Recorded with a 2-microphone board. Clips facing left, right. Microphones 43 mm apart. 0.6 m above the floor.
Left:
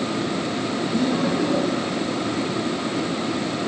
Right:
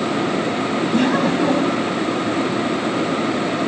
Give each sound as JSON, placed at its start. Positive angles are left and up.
{"t": 0.9, "sound": "laughter", "side_deg": -70, "distance_m": 4.5}